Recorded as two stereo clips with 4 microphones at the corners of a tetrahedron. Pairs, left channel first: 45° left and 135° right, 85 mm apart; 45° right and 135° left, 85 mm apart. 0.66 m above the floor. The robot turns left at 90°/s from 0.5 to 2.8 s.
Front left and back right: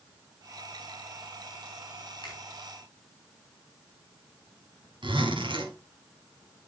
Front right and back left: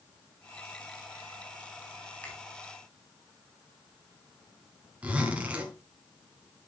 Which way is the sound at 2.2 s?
20° left.